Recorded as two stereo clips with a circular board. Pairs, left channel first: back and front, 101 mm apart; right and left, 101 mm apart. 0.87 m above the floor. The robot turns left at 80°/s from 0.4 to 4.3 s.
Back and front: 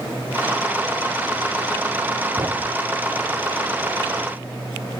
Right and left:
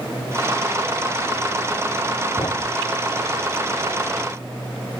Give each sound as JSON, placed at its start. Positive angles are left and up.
{"t": 2.4, "sound": "a thud", "azimuth_deg": -45}